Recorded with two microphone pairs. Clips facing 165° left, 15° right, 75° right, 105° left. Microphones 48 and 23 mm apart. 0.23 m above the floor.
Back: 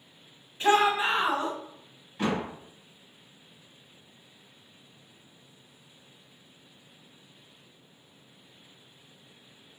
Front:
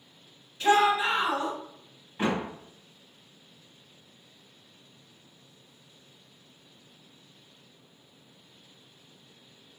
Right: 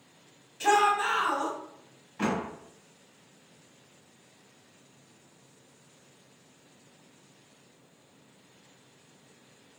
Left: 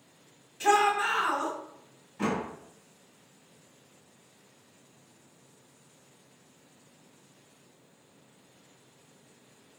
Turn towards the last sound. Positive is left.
turn(degrees=-55)